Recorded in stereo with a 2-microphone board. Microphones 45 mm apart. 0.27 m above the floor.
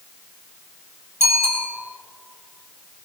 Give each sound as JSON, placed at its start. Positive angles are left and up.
{"t": 1.2, "sound": "a bicycle bell", "side_deg": -80, "distance_m": 4.5}